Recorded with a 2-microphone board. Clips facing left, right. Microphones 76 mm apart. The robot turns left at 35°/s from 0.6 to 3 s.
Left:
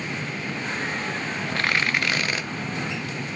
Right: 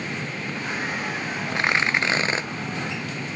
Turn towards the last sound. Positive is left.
turn(degrees=-90)